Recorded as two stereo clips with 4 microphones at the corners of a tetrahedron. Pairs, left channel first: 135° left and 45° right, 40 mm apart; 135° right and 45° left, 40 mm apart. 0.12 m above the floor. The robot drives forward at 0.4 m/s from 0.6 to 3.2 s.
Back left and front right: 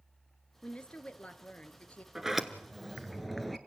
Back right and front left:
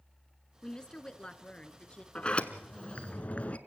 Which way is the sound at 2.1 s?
115° right.